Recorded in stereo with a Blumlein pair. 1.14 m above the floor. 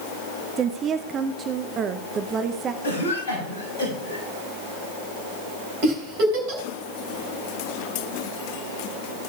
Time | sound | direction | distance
0.6 | a woman speaking | 25° right | 0.8 m
2.8 | a cough | 65° left | 7 m
5.8 | a giggle | 45° right | 4.5 m